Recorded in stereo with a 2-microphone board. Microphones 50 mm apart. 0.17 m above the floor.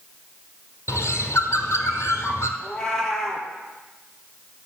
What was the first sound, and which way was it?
A bird, 75° left (ahead or behind).